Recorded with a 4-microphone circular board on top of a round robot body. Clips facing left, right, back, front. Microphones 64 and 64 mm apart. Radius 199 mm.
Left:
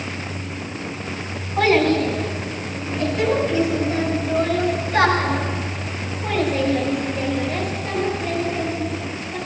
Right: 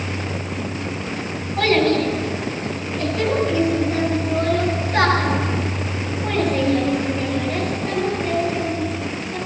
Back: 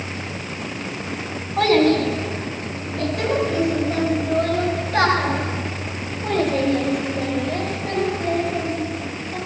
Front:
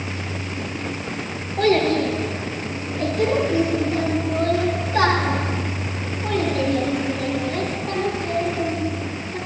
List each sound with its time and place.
1.6 s a child speaking: 170° left, 3 m; by 9.4 s 170° right, 7.5 m